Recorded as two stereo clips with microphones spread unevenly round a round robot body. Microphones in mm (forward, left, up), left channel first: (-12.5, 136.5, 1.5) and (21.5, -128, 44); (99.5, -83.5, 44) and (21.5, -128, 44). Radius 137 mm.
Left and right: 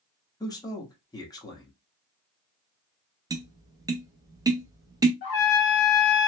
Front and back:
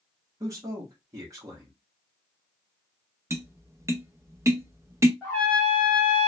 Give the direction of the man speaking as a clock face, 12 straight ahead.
7 o'clock.